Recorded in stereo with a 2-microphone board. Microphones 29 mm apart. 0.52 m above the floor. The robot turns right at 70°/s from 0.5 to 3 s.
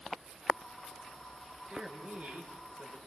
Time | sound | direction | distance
1.7 | a man speaking | 155° right | 7.5 m